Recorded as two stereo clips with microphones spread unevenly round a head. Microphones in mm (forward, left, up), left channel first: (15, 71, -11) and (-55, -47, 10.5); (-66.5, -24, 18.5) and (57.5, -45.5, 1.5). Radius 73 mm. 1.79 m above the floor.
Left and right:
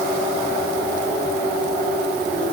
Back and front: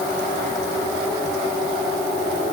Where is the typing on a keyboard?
I don't hear typing on a keyboard.